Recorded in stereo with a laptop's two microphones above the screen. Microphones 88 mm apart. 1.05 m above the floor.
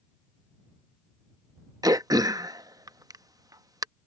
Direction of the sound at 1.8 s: 45° right (ahead or behind).